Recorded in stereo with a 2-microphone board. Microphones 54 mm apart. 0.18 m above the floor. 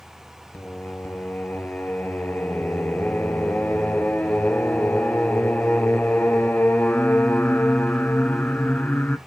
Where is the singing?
35° left (ahead or behind), 0.7 m.